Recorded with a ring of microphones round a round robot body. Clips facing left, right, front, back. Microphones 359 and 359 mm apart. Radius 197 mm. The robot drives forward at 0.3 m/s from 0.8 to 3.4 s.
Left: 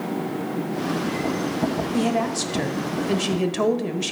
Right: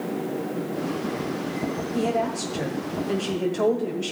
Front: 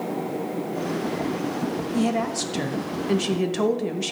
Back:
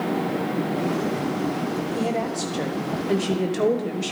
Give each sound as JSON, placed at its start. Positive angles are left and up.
{"t": 1.9, "sound": "a woman speaking", "azimuth_deg": 50, "distance_m": 1.7}